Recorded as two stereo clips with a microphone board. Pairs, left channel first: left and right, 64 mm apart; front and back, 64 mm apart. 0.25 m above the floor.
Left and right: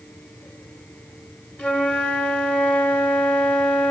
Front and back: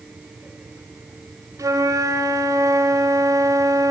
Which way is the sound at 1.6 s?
155° left.